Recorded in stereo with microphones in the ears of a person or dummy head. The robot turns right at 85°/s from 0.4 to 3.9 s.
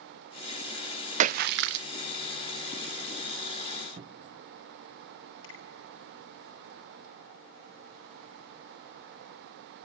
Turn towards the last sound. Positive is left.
turn(degrees=75)  # may be behind; listen again after turning